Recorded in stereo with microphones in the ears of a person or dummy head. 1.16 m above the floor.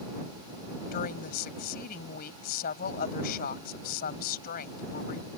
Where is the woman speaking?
50° left (ahead or behind).